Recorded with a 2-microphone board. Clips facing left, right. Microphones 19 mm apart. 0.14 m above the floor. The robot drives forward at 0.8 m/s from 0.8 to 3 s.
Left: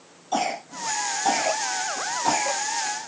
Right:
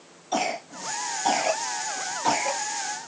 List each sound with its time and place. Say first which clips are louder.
0.3 s a cough: left 1 dB; 10° right (ahead or behind), 3.5 m; by 2.6 s 20° right (ahead or behind), 2 m